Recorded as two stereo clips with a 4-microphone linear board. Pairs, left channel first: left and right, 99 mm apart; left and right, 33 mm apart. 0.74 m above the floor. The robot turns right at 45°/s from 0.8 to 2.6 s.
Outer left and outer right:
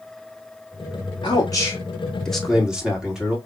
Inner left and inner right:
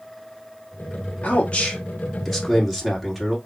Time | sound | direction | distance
1.2 | a man speaking | 125° left | 1.8 m